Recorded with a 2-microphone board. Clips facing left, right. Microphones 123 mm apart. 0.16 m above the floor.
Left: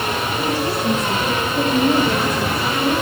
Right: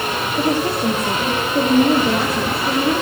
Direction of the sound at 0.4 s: 45° right (ahead or behind).